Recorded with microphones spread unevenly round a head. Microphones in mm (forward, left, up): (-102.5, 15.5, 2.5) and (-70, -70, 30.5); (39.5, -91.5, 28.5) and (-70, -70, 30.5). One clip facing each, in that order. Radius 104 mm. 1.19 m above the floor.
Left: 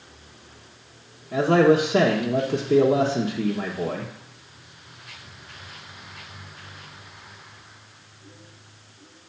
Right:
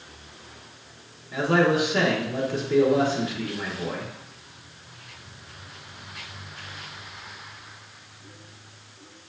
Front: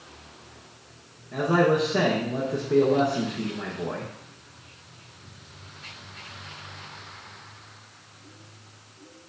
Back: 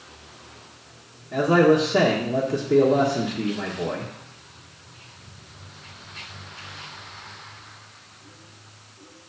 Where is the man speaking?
95° left, 1.3 m.